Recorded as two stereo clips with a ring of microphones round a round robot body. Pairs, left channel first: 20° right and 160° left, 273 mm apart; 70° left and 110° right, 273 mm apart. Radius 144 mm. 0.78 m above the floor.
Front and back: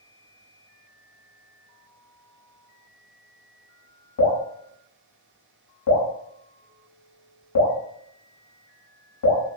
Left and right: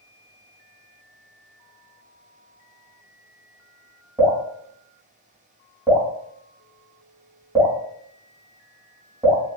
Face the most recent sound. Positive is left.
turn(degrees=-40)